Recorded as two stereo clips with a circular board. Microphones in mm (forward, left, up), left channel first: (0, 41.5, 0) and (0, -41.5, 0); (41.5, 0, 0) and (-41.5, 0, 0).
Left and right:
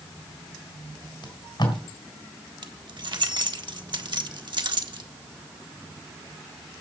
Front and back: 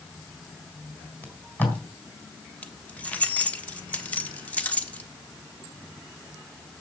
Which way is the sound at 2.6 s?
70° right.